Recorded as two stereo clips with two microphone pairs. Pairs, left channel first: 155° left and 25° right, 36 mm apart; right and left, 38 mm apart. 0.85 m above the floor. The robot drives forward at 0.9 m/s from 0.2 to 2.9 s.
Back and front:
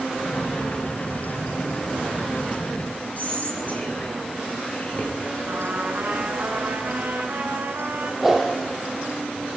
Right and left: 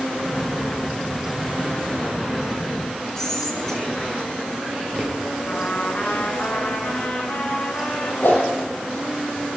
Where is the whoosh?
110° right, 7 m.